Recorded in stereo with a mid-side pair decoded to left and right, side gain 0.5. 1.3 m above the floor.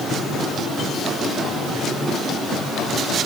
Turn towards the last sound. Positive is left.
No sound to turn to.